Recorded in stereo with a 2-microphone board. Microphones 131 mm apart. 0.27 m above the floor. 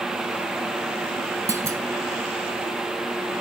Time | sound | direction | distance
1.5 | a clunk | 25° right (ahead or behind) | 0.5 m